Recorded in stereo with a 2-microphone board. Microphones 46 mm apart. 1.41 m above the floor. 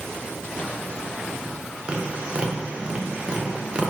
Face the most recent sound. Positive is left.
turn(degrees=-25)  # may be behind; listen again after turning